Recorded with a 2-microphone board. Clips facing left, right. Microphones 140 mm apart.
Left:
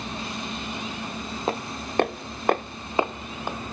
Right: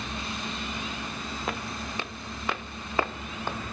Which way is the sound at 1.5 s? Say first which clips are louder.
Left 6 dB; 30° left (ahead or behind).